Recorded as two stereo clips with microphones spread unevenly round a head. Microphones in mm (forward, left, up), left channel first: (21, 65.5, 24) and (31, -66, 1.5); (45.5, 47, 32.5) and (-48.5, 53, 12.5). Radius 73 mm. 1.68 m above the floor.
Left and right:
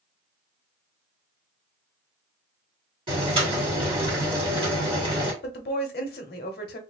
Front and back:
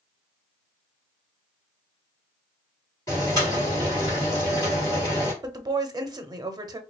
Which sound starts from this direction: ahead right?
Boiling, at 3.1 s.